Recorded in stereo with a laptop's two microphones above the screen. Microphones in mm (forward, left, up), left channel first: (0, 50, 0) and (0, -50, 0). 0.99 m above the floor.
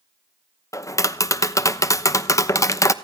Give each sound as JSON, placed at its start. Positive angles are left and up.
{"t": 0.7, "sound": "tapping", "side_deg": 30, "distance_m": 0.8}